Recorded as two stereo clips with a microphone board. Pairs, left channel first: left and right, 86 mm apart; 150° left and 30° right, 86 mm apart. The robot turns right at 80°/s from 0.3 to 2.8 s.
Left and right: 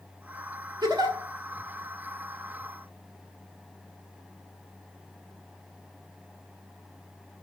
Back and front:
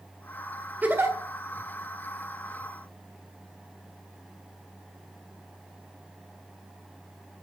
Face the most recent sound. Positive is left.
turn(degrees=65)